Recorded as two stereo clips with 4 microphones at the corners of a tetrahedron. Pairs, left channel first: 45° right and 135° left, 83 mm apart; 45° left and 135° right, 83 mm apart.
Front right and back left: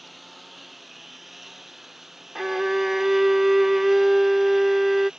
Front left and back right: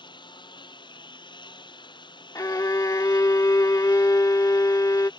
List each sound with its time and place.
0.0 s a lawn mower: 45° left; by 5.2 s 55° left
2.4 s a violin: 50° left